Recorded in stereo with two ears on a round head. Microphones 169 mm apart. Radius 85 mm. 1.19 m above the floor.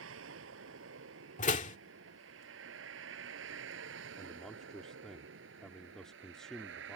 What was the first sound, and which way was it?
A vehicle, 85° right.